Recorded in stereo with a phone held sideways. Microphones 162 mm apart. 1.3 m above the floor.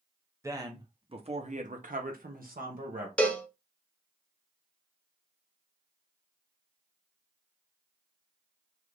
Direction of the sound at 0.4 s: 20° right (ahead or behind).